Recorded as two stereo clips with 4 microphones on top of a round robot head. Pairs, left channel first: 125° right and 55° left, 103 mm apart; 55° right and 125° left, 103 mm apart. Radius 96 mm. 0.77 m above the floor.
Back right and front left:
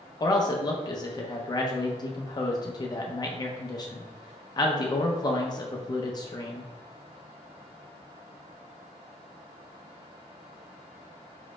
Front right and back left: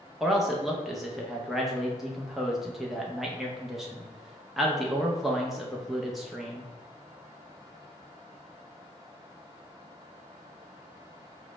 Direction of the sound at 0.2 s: 145° right.